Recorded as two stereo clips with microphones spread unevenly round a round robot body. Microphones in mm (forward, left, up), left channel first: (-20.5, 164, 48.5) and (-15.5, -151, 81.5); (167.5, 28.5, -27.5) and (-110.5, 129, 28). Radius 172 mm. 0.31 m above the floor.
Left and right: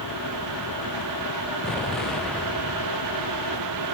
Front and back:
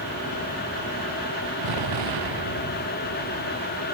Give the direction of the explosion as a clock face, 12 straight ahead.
6 o'clock.